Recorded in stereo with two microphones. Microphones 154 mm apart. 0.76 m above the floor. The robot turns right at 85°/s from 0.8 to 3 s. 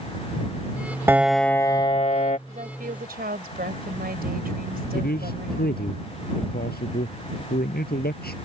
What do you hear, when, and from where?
1.1 s a piano: 20° right; by 2.4 s 90° left
2.5 s a woman speaking: 135° right; by 5.9 s 90° right
4.9 s a man speaking: 90° left